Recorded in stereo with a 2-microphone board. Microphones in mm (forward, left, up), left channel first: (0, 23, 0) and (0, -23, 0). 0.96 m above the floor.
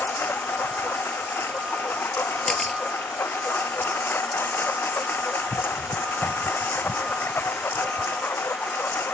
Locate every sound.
0.0 s a lawn mower: 55° left (ahead or behind)
2.5 s a camera shutter: 10° left (ahead or behind)